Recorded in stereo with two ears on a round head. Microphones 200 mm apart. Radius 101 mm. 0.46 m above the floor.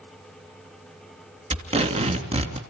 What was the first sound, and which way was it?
Tape being pulled, 30° right (ahead or behind).